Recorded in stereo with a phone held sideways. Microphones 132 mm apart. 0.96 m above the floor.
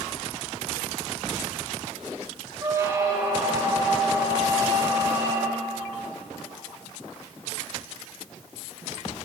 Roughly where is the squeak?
Right.